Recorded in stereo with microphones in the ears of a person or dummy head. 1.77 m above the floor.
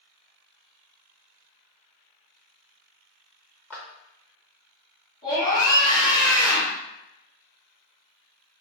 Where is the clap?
15° left (ahead or behind), 0.6 m.